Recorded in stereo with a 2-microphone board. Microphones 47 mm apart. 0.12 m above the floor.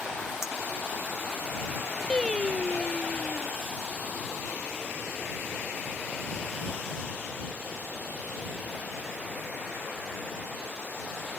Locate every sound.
0.4 s a clink: 75° left (ahead or behind)
2.1 s singing: 20° left (ahead or behind)